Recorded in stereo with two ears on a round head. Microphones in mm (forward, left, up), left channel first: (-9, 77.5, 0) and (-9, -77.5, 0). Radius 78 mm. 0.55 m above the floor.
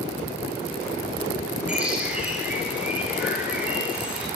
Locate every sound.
1.7 s a bird: 5° right (ahead or behind), 8.5 m